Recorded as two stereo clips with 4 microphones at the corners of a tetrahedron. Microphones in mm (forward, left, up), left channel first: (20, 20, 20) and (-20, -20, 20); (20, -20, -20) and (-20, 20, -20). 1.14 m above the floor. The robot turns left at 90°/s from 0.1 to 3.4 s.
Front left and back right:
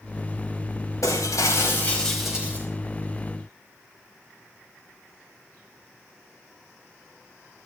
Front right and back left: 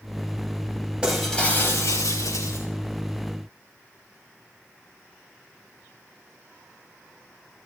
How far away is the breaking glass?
About 4.5 m.